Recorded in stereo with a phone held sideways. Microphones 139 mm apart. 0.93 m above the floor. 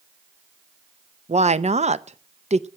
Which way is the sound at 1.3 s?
55° right (ahead or behind).